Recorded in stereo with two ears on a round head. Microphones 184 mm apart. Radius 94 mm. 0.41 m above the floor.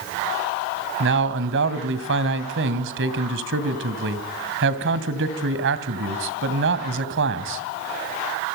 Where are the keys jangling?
No keys jangling in this recording.